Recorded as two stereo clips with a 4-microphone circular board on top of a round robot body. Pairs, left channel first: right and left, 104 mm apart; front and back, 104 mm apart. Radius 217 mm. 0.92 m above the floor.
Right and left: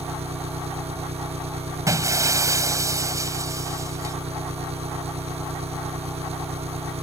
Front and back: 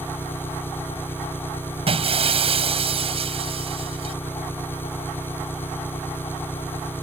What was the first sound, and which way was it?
An engine running, 70° left.